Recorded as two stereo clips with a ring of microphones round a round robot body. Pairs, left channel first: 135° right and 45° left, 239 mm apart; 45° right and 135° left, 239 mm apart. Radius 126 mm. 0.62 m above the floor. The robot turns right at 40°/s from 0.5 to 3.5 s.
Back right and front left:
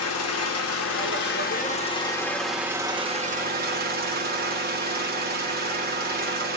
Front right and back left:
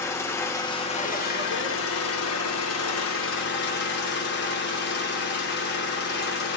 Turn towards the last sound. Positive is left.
turn(degrees=-5)